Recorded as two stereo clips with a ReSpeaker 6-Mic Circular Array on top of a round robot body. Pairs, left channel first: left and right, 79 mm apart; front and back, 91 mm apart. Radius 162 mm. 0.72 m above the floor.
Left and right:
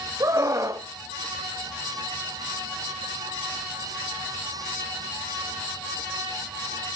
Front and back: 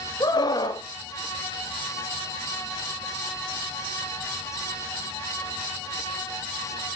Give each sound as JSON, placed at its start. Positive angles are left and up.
{"t": 0.2, "sound": "a scream", "azimuth_deg": -45, "distance_m": 2.0}